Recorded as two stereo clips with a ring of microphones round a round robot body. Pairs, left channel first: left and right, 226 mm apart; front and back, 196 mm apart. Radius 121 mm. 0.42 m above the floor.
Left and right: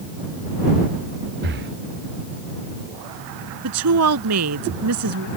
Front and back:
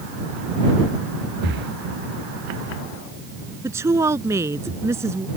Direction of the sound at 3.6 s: 100° right.